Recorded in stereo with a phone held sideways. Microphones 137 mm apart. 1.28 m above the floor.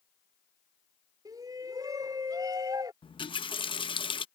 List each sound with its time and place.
1.2 s a shout: 25° right (ahead or behind)
3.0 s a running tap: 35° left (ahead or behind)